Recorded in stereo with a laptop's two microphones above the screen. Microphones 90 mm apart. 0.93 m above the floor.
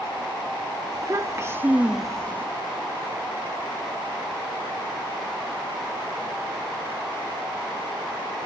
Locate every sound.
0.9 s a child speaking: 40° right (ahead or behind), 1.2 m; by 2.5 s 30° left (ahead or behind), 0.7 m